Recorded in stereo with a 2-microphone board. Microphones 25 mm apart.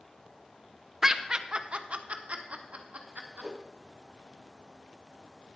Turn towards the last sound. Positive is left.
turn(degrees=-25)  # may be behind; listen again after turning